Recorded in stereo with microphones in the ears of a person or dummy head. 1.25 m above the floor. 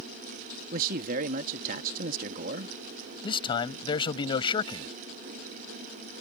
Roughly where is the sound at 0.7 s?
Right.